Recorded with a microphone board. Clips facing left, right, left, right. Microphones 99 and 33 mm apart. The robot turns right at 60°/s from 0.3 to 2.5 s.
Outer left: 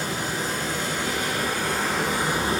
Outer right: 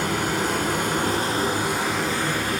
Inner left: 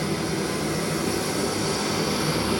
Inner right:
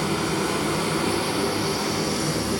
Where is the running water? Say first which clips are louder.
Outer right 4 dB, inner right 2 dB; 105° right, 2.5 m; by 2.6 s 25° left, 2.5 m.